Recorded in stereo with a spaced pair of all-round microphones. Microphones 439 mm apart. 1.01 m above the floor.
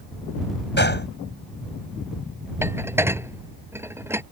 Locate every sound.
0.8 s a gunshot: 25° left (ahead or behind)
2.6 s dishes clattering: 5° right (ahead or behind)